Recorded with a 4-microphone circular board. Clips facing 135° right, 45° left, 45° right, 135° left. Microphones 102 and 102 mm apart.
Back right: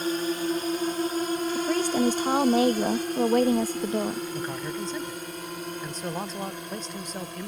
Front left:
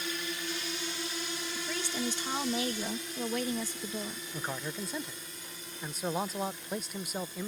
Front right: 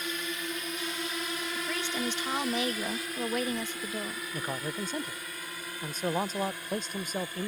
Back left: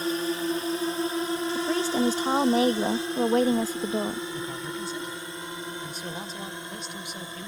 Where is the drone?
175° right; by 7.5 s 160° right.